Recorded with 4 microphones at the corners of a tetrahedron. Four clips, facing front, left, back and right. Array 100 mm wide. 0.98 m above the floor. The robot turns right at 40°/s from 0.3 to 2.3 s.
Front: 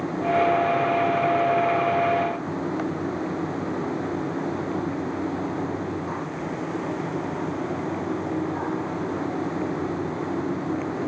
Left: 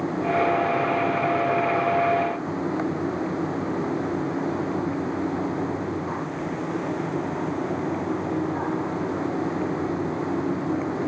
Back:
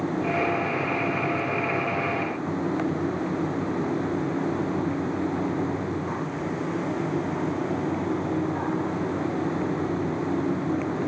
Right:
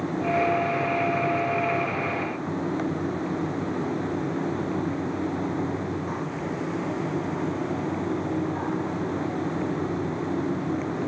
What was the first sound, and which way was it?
Only background noise.